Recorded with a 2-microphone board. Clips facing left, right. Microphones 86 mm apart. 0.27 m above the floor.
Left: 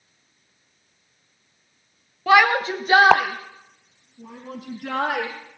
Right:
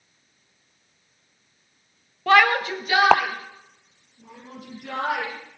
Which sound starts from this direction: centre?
A shout, at 2.3 s.